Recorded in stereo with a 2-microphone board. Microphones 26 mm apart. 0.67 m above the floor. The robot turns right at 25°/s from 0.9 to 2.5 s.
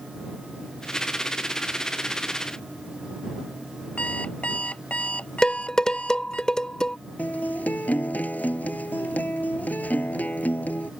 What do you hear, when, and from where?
4.0 s an alarm clock: 60° left (ahead or behind)
5.4 s dishes clattering: 25° left (ahead or behind)
7.2 s a guitar: 85° left